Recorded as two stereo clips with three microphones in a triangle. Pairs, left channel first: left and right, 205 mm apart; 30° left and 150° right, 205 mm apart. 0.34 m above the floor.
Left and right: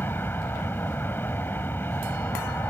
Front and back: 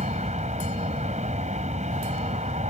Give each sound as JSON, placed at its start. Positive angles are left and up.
{"t": 0.0, "sound": "an aircraft", "azimuth_deg": 165}